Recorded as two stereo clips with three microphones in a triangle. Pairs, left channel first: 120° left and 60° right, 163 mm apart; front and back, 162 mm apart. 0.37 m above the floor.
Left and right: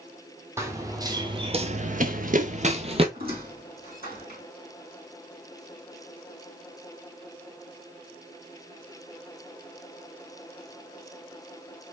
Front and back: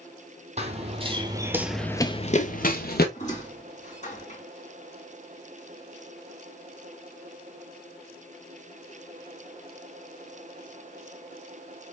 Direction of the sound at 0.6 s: 130° right.